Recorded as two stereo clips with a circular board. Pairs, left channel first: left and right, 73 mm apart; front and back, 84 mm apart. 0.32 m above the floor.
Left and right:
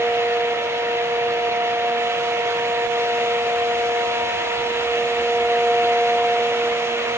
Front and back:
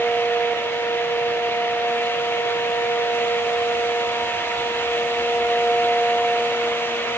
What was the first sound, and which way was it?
Only background noise.